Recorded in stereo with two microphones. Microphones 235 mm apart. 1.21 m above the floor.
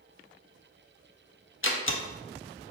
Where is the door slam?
60° left (ahead or behind), 0.5 m.